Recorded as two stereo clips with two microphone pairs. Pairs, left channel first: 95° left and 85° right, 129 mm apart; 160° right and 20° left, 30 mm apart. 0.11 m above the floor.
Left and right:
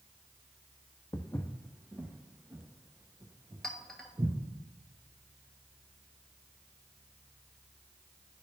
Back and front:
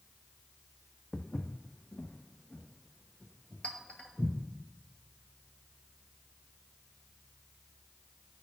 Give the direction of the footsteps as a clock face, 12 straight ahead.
7 o'clock.